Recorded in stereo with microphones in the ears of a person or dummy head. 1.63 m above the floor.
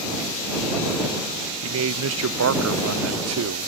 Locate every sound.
1.6 s a man speaking: 80° right